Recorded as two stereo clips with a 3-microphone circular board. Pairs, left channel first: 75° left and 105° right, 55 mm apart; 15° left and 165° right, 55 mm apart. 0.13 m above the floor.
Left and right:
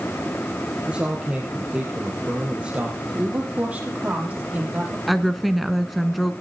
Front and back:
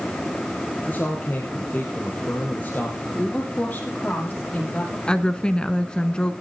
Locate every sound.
0.9 s a man speaking: 40° right, 3.5 m
3.1 s a woman speaking: 45° right, 5.5 m
5.1 s a woman speaking: 15° right, 1.0 m